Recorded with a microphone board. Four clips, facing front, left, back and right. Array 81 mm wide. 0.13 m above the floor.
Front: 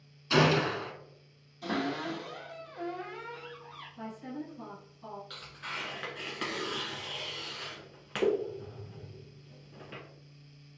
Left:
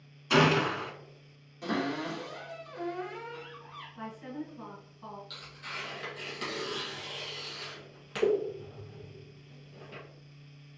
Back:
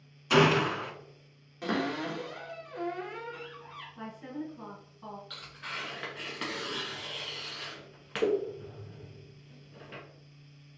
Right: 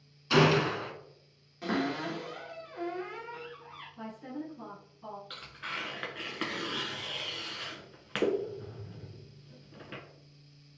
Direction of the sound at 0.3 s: 150° left.